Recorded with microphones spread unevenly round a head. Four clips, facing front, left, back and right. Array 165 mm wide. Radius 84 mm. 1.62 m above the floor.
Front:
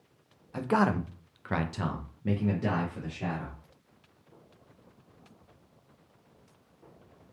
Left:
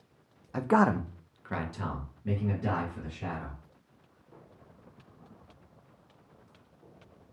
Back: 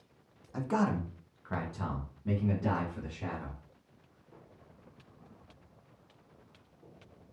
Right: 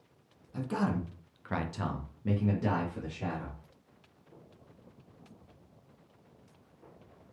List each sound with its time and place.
0.5 s a man speaking: 75° left, 0.6 m; by 3.6 s 40° right, 1.8 m